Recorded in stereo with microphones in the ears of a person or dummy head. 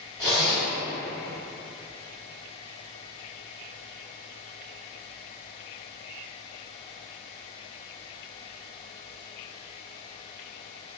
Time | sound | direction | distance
0.2 | a zipper | 20° right (ahead or behind) | 1.6 m